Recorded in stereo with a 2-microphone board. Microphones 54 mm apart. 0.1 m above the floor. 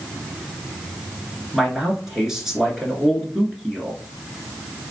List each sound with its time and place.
1.5 s a man speaking: 10° right (ahead or behind), 1.1 m